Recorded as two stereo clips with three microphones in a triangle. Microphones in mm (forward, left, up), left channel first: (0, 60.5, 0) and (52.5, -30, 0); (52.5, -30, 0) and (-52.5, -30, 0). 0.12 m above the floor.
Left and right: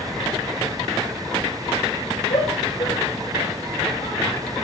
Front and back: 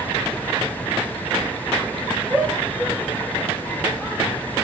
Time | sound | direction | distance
2.3 | a shout | 100° left | 6.5 m